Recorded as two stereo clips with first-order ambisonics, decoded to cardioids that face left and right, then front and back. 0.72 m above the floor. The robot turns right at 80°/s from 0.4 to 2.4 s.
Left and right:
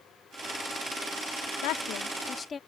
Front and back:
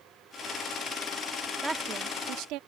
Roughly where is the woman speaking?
Left.